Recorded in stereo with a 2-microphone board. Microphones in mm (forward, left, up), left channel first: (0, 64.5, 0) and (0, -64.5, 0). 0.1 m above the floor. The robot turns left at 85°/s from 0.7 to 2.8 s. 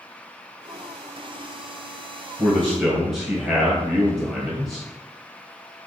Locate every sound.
2.4 s a man speaking: 15° left (ahead or behind), 1.6 m; by 4.9 s centre (ahead or behind), 1.6 m